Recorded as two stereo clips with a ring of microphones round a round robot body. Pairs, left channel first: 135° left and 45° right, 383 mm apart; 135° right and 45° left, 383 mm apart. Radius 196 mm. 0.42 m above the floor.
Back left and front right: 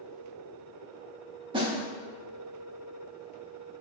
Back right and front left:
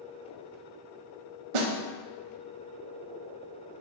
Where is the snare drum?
35° left, 0.6 m.